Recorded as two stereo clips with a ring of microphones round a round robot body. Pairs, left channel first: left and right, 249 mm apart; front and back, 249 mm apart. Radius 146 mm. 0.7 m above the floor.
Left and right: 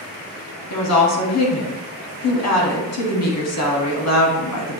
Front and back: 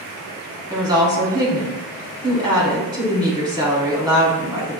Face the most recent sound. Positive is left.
turn(degrees=105)